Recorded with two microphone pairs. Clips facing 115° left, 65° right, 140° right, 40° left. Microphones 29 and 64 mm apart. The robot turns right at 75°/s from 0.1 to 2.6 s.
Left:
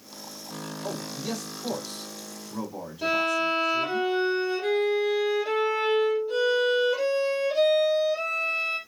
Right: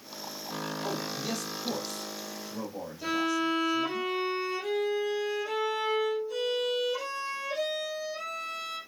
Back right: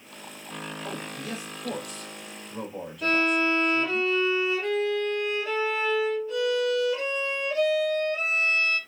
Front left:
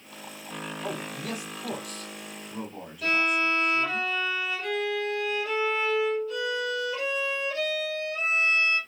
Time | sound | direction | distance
0.8 | a man speaking | 5° right | 5 m
3.0 | a violin | 155° left | 6 m